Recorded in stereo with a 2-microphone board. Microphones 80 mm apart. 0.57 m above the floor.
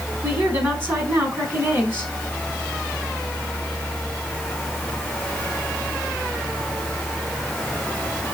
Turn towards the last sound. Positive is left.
turn(degrees=-30)  # may be behind; listen again after turning